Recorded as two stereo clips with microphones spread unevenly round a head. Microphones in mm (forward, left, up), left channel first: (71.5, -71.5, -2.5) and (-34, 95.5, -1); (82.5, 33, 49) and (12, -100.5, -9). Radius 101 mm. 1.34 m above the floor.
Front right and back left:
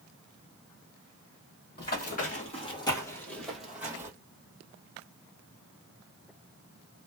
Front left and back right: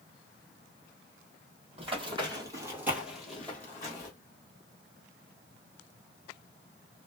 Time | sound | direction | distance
1.8 | running footsteps | 55° right | 1.8 m